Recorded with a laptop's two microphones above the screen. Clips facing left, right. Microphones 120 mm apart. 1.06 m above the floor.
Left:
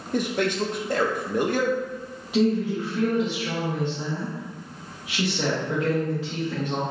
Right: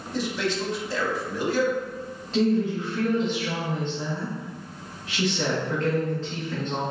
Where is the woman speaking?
10° left (ahead or behind), 1.1 m.